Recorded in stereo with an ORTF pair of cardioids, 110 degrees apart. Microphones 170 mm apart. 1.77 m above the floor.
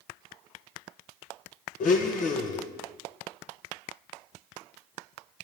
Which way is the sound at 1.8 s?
50° left.